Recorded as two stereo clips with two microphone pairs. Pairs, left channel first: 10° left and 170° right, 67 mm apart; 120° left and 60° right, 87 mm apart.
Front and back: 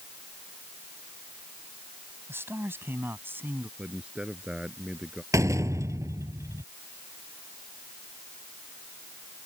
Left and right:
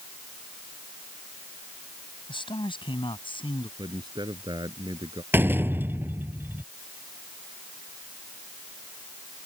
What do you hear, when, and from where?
2.3 s a man speaking: 140° left; by 3.7 s 135° left
3.8 s a man speaking: 95° right
5.3 s a door slam: 125° right